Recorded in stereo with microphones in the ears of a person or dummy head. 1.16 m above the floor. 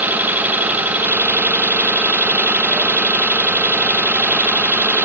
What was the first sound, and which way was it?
An engine running, 10° right (ahead or behind).